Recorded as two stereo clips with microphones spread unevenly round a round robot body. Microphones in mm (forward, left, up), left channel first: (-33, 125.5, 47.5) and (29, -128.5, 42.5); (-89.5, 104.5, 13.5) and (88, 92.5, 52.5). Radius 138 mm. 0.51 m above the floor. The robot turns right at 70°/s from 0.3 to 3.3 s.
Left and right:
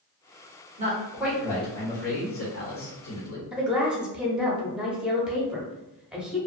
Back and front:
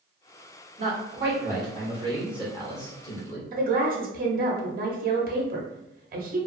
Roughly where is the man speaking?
Ahead right.